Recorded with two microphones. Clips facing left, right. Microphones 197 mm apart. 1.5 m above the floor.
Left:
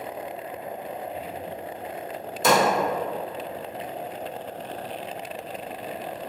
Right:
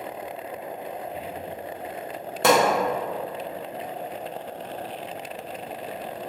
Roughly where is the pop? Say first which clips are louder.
Right 2 dB; right.